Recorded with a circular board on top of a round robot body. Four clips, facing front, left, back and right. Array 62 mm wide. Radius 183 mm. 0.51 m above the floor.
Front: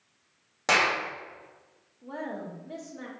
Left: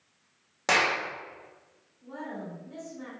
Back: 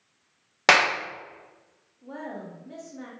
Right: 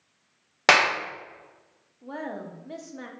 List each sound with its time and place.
0.7 s a clap: 135° right, 0.9 m
2.0 s a woman speaking: 80° right, 1.0 m